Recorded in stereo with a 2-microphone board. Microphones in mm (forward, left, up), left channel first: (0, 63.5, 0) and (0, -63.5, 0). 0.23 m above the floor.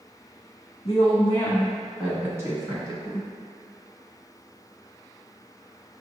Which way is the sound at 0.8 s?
45° left (ahead or behind).